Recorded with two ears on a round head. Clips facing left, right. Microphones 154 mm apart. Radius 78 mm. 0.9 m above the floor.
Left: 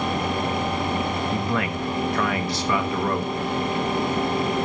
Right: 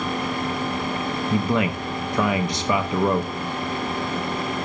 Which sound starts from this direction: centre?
A man speaking, at 1.3 s.